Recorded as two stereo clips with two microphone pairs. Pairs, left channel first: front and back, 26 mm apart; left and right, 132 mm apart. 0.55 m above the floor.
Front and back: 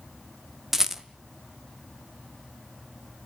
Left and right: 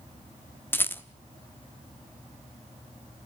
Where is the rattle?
135° left, 0.9 m.